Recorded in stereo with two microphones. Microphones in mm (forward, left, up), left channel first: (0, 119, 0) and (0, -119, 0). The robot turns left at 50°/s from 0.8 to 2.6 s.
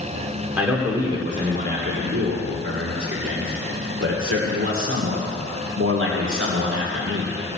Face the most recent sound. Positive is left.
turn(degrees=-95)